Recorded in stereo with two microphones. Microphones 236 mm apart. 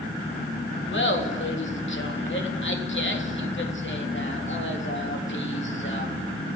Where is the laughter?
55° left (ahead or behind), 3.5 m.